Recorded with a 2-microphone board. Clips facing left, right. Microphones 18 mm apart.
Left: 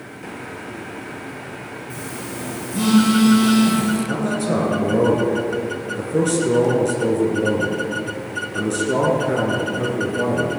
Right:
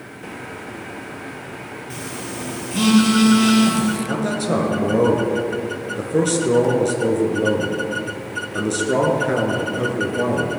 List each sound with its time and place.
1.9 s a phone buzzing: 35° right (ahead or behind), 2.5 m
4.1 s a man speaking: 20° right (ahead or behind), 2 m